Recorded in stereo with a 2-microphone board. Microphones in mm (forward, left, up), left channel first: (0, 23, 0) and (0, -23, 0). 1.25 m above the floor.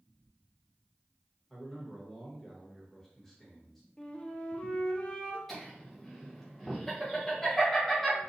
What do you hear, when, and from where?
1.5 s a man speaking: 5° left (ahead or behind), 1.3 m
4.0 s a flute: 25° left (ahead or behind), 0.5 m
5.5 s laughter: 5° left (ahead or behind), 1.1 m